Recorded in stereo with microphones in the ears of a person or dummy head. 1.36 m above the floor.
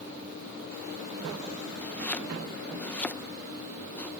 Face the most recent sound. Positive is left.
turn(degrees=5)  # may be behind; listen again after turning